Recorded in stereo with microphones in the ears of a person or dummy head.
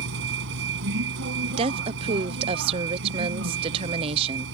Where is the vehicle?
70° right (ahead or behind).